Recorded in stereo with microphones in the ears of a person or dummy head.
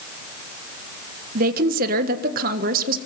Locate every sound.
1.4 s a woman speaking: 55° right (ahead or behind), 1.5 m